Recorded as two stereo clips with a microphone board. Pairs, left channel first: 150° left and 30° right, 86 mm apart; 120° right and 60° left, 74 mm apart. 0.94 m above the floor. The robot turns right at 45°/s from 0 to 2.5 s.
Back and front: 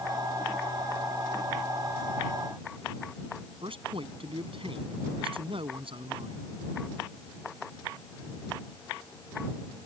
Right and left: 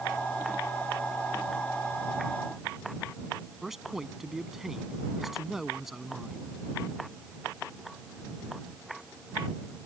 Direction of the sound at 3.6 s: 25° right.